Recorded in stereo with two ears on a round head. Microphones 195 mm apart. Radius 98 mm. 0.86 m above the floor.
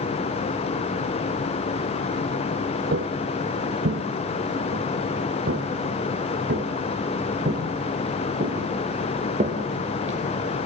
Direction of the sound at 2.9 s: 50° right (ahead or behind).